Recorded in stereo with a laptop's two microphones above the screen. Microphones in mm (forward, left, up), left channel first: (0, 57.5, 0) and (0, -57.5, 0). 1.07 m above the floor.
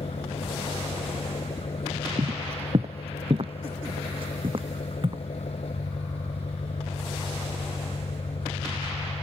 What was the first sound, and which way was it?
An engine running, 60° left (ahead or behind).